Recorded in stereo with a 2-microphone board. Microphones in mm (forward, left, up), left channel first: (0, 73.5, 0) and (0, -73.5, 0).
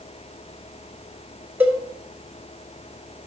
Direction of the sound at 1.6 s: 10° right (ahead or behind).